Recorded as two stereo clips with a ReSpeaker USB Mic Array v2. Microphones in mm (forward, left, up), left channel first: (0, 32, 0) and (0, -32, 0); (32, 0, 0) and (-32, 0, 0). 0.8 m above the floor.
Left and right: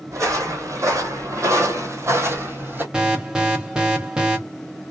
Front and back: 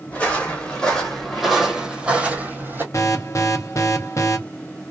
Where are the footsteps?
65° right, 1.6 m; by 2.8 s 135° right, 1.2 m.